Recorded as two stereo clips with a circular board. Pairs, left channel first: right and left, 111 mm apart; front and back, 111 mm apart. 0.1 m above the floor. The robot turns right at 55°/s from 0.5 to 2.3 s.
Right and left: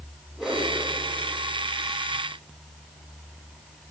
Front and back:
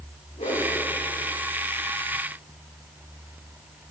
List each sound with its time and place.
0.4 s a whoosh: 5° left, 6 m; by 0.7 s 15° left, 6 m